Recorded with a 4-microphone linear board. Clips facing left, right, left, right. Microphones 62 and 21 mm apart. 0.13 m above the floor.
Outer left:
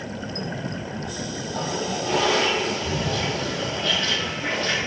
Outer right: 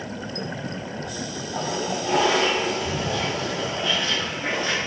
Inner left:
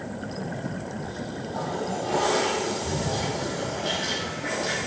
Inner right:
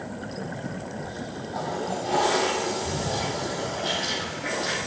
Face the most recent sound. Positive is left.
turn(degrees=-20)  # may be behind; listen again after turning